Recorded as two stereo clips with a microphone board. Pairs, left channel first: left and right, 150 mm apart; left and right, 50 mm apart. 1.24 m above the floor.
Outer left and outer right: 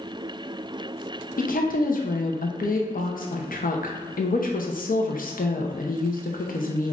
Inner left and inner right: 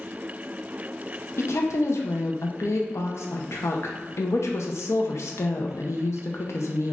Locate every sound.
1.4 s a woman speaking: 70° left (ahead or behind), 0.6 m